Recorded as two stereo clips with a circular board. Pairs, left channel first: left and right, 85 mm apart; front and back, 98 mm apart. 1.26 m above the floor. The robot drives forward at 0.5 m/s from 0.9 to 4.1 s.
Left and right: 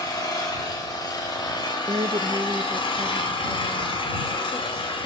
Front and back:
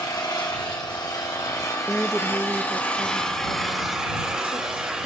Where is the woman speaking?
80° right, 0.6 m; by 5.1 s 150° right, 1.2 m.